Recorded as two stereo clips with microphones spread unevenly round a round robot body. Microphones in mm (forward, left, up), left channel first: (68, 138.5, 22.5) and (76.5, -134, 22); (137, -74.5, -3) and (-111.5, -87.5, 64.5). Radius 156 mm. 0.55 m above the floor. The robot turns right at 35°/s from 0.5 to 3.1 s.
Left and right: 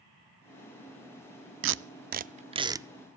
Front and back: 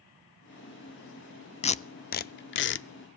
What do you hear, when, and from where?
1.6 s tape being pulled: 50° right, 0.5 m; by 2.9 s 10° right, 0.5 m